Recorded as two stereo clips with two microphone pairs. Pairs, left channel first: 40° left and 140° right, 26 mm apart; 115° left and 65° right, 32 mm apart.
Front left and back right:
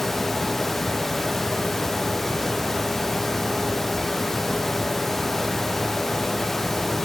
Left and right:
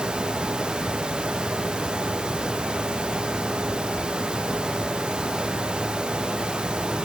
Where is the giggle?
I don't hear a giggle.